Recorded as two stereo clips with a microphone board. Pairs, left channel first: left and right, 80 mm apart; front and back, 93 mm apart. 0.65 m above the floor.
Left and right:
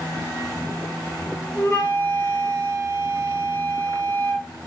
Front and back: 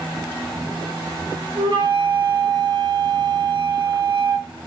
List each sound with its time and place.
1.6 s a flute: 160° left, 3 m